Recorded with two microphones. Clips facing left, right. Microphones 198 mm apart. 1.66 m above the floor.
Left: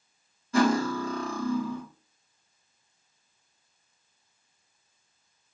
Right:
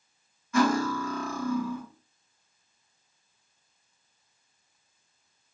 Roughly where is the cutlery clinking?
Left.